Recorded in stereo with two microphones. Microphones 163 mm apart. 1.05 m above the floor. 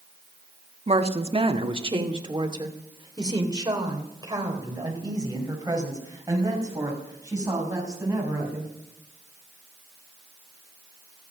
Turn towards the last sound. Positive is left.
turn(degrees=-20)  # may be behind; listen again after turning